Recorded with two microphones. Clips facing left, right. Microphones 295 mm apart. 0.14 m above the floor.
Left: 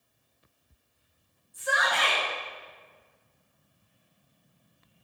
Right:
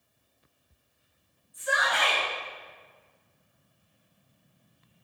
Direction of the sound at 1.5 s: 50° left (ahead or behind).